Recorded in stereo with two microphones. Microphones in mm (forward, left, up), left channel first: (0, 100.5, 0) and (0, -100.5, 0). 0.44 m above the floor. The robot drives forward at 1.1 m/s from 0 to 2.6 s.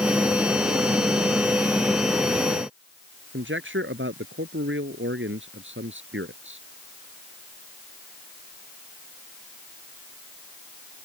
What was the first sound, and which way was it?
A man speaking, 75° right (ahead or behind).